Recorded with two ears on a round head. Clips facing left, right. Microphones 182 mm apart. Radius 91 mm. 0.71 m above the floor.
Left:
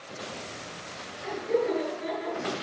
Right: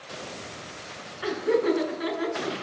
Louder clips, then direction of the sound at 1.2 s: Right 4 dB; 85° right.